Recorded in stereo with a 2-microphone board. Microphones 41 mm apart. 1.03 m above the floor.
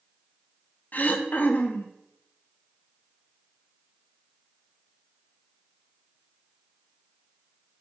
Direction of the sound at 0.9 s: 50° left (ahead or behind).